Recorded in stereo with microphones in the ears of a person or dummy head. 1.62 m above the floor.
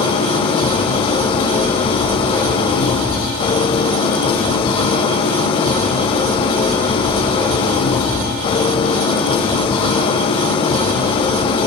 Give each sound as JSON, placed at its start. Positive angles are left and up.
{"t": 0.0, "sound": "an engine running", "side_deg": 35, "distance_m": 2.0}